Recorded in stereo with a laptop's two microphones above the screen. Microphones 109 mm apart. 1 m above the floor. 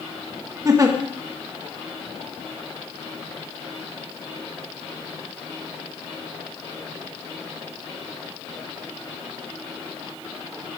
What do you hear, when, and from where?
0.7 s a giggle: 30° right (ahead or behind), 1.2 m